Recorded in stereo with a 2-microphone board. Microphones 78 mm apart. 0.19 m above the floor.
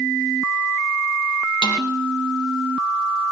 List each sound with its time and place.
1.6 s a snare drum: 65° left (ahead or behind), 6.5 m